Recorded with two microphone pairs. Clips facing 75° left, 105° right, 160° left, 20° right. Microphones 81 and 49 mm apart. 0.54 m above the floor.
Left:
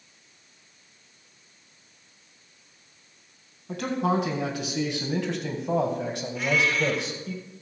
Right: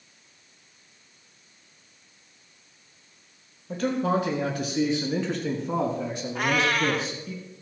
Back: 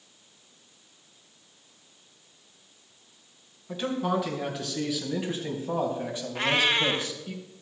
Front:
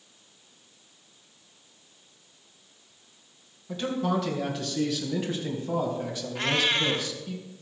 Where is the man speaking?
80° left, 4.5 m; by 7.3 s 95° left, 2.5 m.